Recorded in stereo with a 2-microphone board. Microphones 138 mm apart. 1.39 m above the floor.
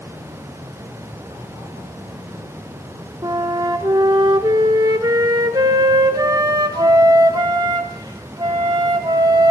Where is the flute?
30° right (ahead or behind), 1.2 m.